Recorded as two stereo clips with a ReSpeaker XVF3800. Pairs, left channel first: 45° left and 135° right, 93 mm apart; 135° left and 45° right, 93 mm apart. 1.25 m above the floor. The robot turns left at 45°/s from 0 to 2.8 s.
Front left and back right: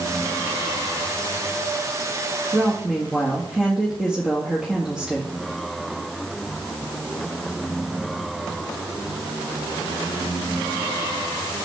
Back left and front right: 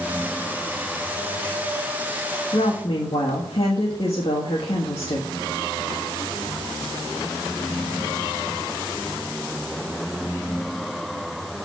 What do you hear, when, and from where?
2.5 s a woman speaking: 155° left, 1.9 m; by 5.3 s 145° left, 1.9 m